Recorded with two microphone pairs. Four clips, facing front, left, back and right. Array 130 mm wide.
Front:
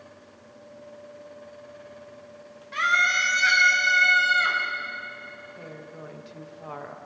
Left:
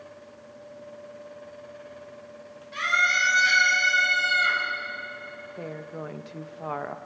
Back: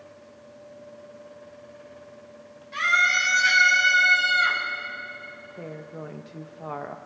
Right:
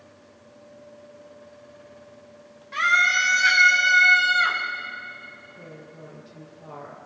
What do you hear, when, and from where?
2.7 s a scream: 50° right, 3.5 m; by 4.6 s 70° right, 3.5 m
5.6 s a woman speaking: 105° left, 0.9 m